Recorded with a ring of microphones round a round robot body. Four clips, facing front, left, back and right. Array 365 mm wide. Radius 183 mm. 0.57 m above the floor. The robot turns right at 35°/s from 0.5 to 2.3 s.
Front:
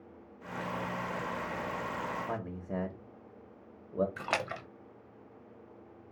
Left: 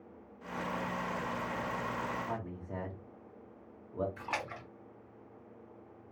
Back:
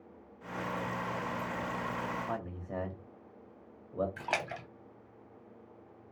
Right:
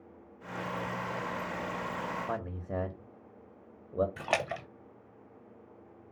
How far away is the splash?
About 0.5 m.